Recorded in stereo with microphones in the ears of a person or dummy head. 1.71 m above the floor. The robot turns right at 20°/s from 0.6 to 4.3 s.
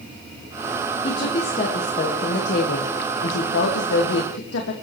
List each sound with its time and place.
1.0 s a woman speaking: 25° left, 1.7 m; by 4.7 s 90° left, 1.7 m